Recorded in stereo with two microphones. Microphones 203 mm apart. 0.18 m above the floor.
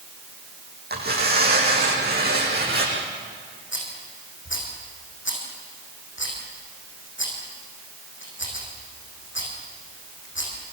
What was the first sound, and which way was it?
Tearing paper, 55° right (ahead or behind).